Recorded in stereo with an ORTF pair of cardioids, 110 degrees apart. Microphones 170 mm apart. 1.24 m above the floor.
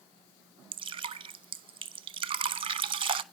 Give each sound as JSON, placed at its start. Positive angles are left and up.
{"t": 0.7, "sound": "dripping", "azimuth_deg": -35, "distance_m": 1.0}